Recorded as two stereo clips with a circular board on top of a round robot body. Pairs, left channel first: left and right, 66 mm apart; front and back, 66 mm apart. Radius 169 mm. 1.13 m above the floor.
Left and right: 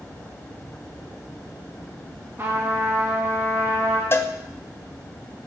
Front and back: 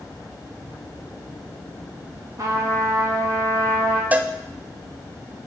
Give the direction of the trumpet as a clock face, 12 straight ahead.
5 o'clock.